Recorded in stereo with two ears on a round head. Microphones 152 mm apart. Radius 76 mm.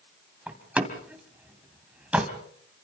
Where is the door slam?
5° right (ahead or behind), 2 m.